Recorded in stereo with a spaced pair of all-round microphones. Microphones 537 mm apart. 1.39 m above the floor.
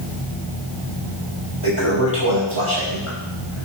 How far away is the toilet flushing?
About 6 m.